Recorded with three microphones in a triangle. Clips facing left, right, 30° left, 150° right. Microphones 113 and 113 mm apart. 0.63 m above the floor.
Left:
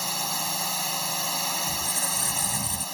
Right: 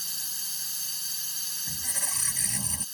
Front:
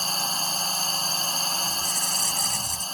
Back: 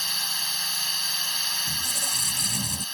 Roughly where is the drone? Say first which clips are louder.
Left 21 dB, front 7 dB; left.